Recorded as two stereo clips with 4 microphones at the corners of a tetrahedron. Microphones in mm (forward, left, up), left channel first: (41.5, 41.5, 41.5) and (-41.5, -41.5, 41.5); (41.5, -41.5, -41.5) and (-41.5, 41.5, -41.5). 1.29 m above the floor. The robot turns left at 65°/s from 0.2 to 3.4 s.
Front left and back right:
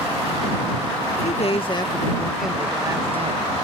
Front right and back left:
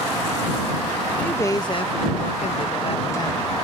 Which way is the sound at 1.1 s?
40° left.